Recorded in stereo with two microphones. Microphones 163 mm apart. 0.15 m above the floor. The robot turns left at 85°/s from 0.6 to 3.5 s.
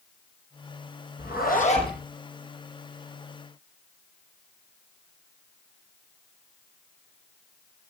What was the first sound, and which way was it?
A zipper, 90° left.